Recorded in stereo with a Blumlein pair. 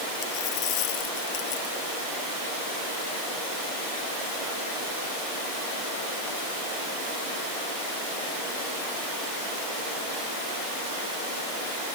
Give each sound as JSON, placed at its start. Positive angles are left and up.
{"t": 0.2, "sound": "a dropped coin", "azimuth_deg": 40}